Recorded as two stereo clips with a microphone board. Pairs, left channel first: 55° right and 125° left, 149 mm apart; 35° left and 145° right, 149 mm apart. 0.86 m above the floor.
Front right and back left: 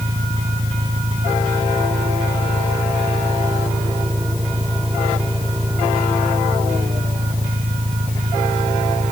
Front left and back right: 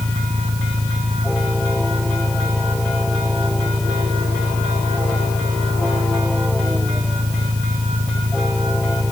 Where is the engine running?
175° left.